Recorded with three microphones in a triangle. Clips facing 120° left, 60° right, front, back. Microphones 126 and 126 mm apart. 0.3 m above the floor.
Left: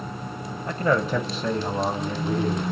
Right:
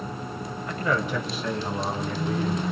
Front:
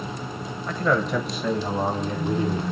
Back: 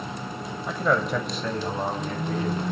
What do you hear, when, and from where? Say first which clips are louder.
0.7 s a man speaking: left 4 dB, front 1 dB; 105° left, 1.1 m; by 2.6 s 70° left, 2 m